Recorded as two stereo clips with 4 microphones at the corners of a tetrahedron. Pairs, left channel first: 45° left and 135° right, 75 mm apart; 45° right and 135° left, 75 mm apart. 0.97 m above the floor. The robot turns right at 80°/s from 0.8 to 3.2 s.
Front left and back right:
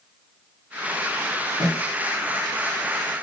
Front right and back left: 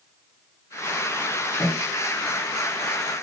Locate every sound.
1.6 s a snare drum: 95° right, 3 m; by 1.8 s 80° right, 3 m